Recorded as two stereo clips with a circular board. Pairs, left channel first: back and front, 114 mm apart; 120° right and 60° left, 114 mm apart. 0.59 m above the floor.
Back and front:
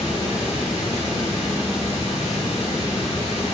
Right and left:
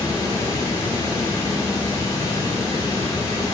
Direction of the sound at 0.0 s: Straight behind.